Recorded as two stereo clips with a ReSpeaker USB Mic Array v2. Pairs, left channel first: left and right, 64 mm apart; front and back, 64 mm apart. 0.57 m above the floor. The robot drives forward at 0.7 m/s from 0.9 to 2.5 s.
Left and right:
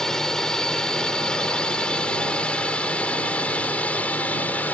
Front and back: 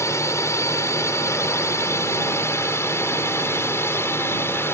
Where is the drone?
10° left; by 4.8 s 35° left.